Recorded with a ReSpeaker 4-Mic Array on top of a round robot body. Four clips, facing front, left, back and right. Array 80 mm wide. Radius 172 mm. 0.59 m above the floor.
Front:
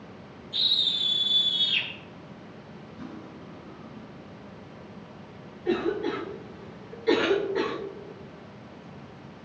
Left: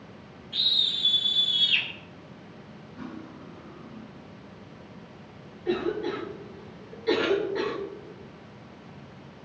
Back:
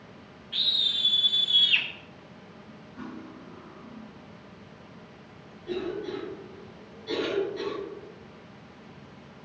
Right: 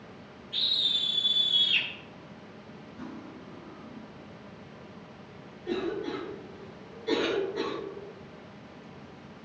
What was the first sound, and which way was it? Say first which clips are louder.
A scream: left 2 dB, even; straight behind.